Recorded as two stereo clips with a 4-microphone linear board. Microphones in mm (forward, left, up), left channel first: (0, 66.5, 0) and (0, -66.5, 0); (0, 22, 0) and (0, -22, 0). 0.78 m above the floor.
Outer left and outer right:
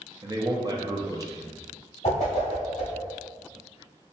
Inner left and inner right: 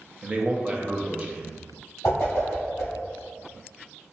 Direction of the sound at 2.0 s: 60° left (ahead or behind).